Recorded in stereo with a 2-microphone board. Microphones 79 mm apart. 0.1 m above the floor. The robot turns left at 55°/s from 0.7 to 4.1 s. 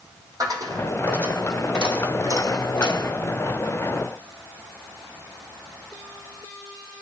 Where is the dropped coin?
130° right, 2.0 m; by 3.1 s 95° left, 2.0 m.